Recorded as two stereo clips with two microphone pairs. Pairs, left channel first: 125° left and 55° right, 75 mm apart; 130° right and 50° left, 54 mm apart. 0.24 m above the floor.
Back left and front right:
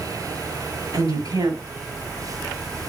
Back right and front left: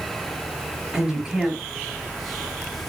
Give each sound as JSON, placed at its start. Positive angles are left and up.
{"t": 0.9, "sound": "a woman speaking", "azimuth_deg": -25, "distance_m": 5.5}